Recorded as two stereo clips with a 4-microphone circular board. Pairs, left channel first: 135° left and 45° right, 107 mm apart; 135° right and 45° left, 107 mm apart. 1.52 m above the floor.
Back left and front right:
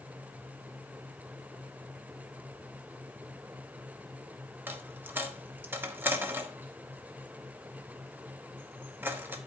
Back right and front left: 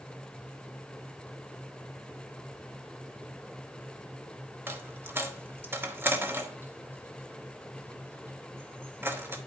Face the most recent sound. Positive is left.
turn(degrees=0)